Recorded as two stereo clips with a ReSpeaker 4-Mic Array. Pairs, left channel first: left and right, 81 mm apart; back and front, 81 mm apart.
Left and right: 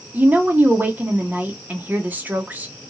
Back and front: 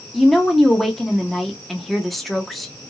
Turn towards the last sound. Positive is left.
turn(degrees=-90)